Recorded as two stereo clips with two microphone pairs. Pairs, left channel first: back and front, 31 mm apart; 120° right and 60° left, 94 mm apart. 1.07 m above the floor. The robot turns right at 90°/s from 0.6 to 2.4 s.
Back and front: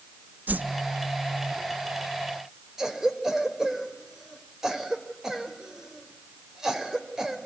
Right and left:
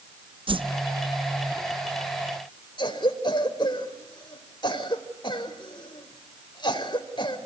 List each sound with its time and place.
0.5 s a whoosh: 30° left, 0.8 m; by 0.7 s 35° left, 0.8 m
2.8 s a cough: 80° right, 4 m